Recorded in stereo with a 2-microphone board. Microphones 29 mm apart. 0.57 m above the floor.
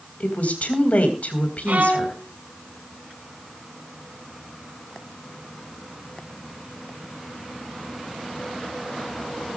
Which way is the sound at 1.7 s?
75° right (ahead or behind).